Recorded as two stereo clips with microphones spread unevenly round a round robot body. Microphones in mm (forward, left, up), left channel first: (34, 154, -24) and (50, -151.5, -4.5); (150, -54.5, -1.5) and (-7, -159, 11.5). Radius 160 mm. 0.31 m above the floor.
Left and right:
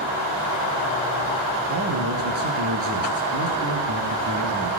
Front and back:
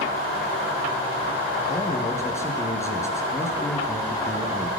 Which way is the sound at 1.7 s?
40° right.